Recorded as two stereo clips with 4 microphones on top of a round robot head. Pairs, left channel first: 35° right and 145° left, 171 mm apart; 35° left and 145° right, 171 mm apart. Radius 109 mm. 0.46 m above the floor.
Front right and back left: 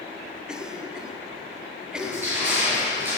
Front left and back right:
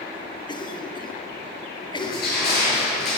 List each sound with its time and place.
0.5 s a cough: 65° left, 1.4 m
2.0 s crushing: 65° left, 6 m